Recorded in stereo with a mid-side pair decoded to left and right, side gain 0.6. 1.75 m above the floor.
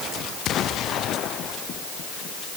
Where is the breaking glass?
I don't hear breaking glass.